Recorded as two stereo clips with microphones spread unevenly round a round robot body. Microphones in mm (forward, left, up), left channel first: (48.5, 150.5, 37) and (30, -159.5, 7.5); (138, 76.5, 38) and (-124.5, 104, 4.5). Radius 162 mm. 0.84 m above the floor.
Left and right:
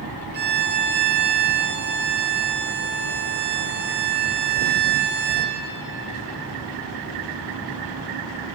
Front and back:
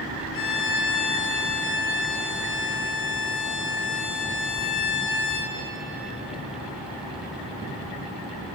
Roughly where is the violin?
Ahead right.